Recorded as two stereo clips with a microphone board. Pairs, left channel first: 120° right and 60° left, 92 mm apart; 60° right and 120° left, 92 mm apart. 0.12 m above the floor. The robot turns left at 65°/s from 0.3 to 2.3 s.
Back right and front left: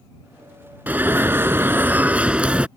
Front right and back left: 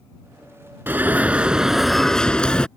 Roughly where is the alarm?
Left.